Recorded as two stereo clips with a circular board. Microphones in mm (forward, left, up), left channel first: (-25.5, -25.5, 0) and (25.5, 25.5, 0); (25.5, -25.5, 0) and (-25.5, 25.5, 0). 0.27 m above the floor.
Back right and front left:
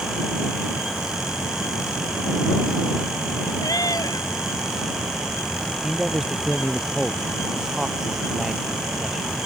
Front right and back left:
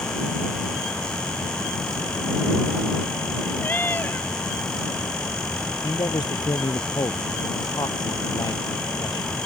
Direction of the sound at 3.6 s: 105° right.